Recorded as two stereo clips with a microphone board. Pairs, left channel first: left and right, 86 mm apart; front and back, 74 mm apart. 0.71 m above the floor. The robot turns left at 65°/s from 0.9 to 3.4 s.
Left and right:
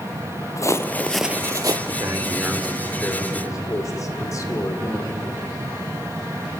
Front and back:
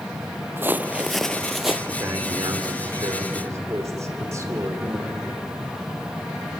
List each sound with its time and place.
0.6 s footsteps: 130° left, 1.0 m; by 1.8 s 105° right, 1.1 m
1.9 s a man speaking: 125° right, 2.5 m; by 5.2 s 135° left, 2.5 m